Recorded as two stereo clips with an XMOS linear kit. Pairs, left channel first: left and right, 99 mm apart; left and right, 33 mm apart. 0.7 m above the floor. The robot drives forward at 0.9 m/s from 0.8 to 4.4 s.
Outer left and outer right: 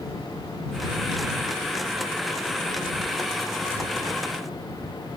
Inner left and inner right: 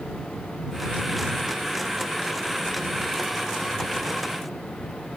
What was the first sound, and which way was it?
Only background noise.